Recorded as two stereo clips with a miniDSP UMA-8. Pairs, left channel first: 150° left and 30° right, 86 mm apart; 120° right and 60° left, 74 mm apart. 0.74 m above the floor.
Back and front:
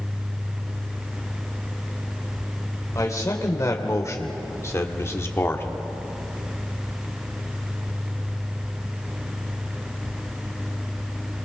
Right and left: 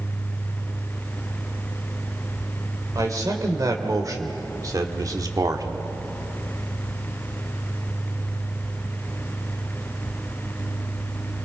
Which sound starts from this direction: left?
A man speaking, at 3.0 s.